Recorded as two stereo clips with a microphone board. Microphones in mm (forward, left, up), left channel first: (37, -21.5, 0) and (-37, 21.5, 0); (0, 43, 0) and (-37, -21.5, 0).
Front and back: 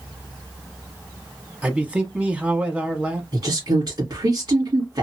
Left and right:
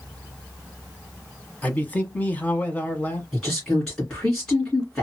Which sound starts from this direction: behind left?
A woman speaking, at 3.3 s.